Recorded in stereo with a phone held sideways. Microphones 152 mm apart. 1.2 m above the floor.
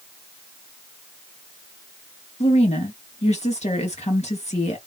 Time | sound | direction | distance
2.4 | a woman speaking | 45° left (ahead or behind) | 2 m